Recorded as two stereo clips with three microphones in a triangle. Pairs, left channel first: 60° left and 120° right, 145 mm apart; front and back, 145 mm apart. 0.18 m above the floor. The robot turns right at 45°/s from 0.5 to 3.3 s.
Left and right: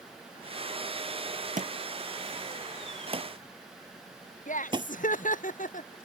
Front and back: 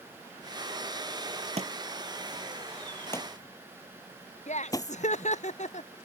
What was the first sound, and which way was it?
A thud, 140° right.